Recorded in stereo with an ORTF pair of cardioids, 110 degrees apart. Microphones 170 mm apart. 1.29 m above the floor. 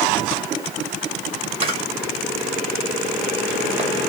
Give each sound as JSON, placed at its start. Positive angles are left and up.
{"t": 1.6, "sound": "a camera shutter", "azimuth_deg": -35, "distance_m": 1.8}